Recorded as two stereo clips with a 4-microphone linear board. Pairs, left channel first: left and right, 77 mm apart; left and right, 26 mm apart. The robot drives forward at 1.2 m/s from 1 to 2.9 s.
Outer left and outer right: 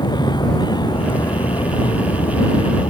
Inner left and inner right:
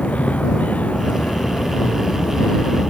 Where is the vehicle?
70° left (ahead or behind); by 2.9 s 80° left.